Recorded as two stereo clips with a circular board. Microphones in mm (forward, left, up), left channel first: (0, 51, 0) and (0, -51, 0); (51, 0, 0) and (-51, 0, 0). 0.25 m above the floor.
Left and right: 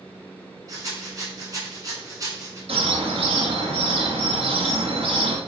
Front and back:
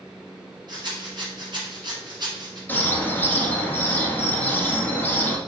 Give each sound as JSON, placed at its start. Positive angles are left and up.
{"t": 0.7, "sound": "a rattle", "azimuth_deg": -140, "distance_m": 2.0}
{"t": 2.7, "sound": "a bird", "azimuth_deg": -70, "distance_m": 1.1}